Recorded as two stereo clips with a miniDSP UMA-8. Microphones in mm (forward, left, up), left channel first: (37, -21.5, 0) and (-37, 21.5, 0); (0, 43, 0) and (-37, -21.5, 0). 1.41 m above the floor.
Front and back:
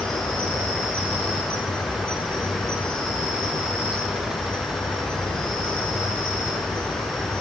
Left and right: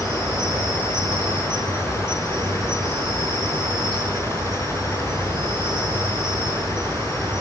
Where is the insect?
110° right, 5 m.